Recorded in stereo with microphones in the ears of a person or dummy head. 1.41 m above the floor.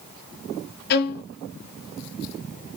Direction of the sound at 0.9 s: 50° left (ahead or behind).